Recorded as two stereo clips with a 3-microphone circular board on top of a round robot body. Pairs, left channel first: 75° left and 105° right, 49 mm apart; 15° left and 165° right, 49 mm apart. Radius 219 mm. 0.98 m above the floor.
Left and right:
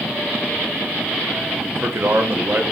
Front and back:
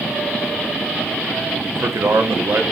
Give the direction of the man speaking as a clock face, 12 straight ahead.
5 o'clock.